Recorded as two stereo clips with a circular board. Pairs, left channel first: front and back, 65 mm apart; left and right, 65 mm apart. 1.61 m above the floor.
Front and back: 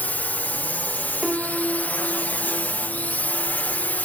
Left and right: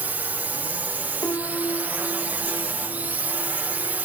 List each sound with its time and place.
0.0 s a drone: 45° right
1.2 s a piano: 100° left